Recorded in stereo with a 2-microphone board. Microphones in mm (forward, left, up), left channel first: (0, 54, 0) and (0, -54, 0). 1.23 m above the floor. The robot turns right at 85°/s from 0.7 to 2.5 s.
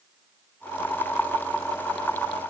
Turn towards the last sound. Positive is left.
No sound to turn to.